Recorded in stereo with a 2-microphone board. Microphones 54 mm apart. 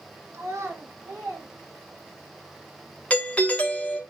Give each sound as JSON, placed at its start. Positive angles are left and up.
{"t": 0.3, "sound": "a child speaking", "side_deg": -60, "distance_m": 0.5}
{"t": 3.1, "sound": "a doorbell", "side_deg": 25, "distance_m": 0.7}